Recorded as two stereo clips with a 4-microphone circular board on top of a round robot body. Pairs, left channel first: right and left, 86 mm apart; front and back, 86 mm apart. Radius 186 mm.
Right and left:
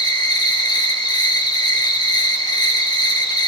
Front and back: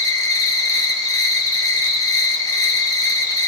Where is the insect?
50° right, 3 m.